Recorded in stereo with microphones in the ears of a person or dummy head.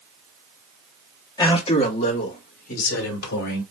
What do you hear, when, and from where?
1.4 s a man speaking: 25° left (ahead or behind), 1.5 m; by 3.6 s 60° left (ahead or behind), 3 m